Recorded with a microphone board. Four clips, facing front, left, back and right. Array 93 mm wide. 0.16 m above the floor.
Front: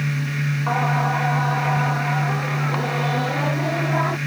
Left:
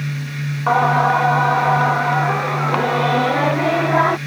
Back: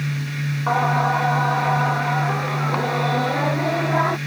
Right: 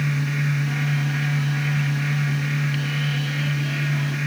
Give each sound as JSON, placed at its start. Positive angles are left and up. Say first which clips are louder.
{"t": 0.7, "sound": "singing", "louder": "left 12 dB, back 3 dB", "azimuth_deg": 95}